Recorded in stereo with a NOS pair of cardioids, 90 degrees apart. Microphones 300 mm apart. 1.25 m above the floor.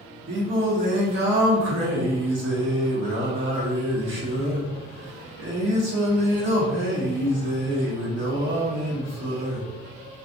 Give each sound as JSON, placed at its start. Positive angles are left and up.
{"t": 0.3, "sound": "singing", "azimuth_deg": -45, "distance_m": 1.3}